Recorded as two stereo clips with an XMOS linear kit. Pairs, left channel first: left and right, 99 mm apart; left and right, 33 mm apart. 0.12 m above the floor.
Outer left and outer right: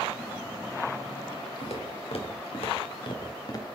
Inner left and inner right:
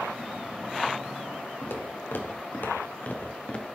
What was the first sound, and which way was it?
Footsteps, 90° left.